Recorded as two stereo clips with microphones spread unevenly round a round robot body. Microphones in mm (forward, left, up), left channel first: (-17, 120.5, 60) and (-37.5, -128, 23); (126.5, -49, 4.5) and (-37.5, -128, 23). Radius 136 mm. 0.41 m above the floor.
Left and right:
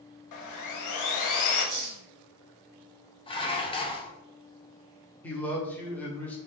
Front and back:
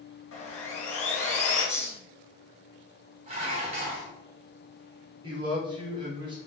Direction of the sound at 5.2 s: Straight behind.